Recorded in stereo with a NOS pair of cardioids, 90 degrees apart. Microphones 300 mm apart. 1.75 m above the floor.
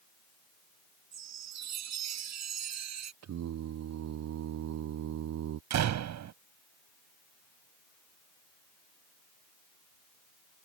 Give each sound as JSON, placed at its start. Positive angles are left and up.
{"t": 1.1, "sound": "a chime", "azimuth_deg": -65}
{"t": 3.2, "sound": "singing", "azimuth_deg": -65}
{"t": 5.7, "sound": "a door slam", "azimuth_deg": -70}